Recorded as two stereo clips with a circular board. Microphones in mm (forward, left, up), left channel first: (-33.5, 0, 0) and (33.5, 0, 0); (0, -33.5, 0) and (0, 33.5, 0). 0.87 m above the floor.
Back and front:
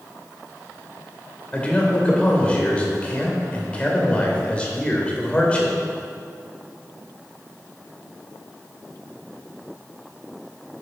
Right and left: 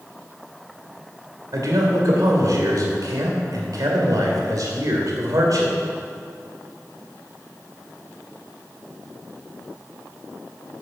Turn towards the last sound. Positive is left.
turn(degrees=110)